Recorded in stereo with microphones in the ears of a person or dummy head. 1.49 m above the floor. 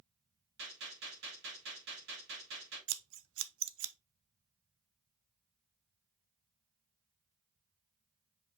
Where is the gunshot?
65° right (ahead or behind), 3.5 m.